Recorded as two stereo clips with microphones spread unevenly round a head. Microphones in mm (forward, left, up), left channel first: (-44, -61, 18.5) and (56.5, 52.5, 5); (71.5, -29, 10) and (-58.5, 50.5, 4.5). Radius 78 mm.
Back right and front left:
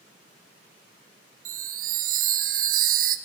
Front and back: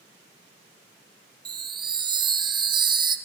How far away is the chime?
About 0.9 m.